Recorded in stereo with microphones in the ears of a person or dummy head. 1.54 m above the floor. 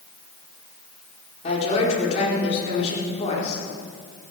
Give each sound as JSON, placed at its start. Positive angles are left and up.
{"t": 1.4, "sound": "a woman speaking", "side_deg": 40, "distance_m": 5.0}